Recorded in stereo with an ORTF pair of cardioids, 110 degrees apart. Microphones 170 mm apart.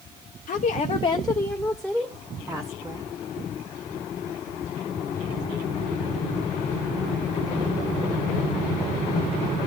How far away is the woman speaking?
About 0.8 m.